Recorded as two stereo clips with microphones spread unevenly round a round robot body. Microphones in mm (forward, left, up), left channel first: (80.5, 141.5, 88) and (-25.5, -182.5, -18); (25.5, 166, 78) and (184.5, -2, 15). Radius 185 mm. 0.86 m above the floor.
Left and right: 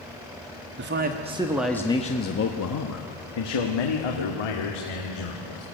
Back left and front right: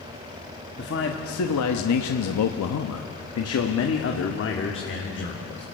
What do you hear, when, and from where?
0.8 s a man speaking: 160° right, 1.3 m; by 5.6 s 85° left, 3 m